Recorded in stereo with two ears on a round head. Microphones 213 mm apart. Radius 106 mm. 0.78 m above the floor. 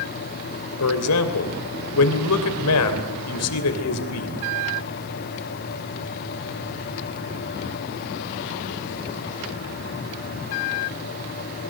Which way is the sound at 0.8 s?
70° left (ahead or behind).